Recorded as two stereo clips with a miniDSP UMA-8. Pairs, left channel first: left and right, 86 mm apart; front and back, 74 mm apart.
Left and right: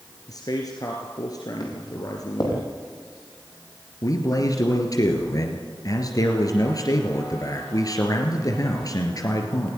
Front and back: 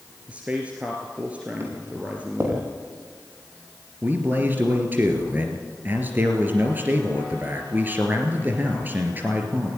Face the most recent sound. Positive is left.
turn(degrees=120)